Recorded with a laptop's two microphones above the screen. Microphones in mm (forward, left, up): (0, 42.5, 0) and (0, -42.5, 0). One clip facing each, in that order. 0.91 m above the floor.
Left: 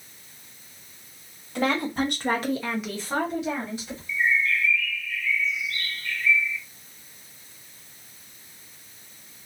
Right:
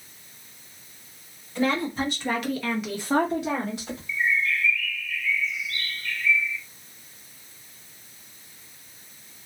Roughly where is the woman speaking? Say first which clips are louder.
Even; left.